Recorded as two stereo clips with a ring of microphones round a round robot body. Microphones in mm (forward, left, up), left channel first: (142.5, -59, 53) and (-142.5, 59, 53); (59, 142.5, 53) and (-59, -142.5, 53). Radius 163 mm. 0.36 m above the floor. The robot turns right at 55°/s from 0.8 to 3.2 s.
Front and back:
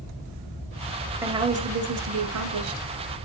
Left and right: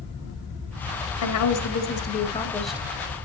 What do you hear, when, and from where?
1.2 s a woman speaking: 75° left, 2 m; by 2.9 s 165° left, 2 m